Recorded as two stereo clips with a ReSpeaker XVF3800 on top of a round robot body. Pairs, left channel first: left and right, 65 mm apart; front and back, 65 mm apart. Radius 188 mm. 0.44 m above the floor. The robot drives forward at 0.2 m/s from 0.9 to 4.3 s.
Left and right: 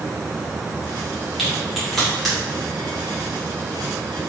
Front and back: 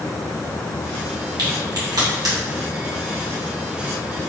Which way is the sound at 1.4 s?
Straight behind.